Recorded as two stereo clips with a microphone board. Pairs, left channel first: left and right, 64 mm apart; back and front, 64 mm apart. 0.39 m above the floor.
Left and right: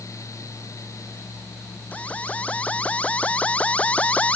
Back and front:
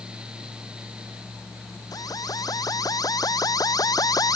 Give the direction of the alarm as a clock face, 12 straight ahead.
7 o'clock.